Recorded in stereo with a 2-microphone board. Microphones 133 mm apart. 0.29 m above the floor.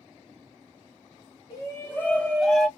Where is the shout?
30° left (ahead or behind), 1.3 m; by 2.7 s centre (ahead or behind), 1.7 m.